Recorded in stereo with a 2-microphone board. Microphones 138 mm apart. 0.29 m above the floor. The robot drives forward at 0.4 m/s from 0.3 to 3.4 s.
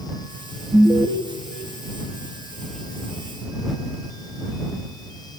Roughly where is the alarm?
Centre.